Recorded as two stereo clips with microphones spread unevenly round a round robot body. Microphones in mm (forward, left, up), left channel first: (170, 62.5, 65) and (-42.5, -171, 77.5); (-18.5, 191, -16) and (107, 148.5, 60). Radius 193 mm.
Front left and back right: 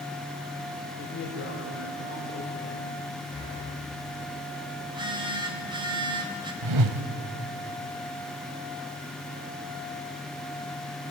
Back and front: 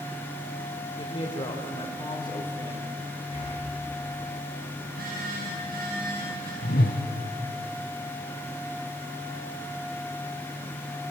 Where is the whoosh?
135° right, 1.1 m.